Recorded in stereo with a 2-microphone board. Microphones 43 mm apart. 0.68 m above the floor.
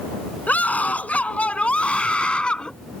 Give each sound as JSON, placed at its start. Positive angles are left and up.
{"t": 0.5, "sound": "a scream", "side_deg": 35}